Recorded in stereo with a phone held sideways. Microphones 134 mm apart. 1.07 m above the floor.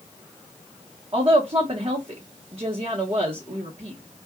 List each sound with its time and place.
1.1 s a woman speaking: 35° right (ahead or behind), 1.2 m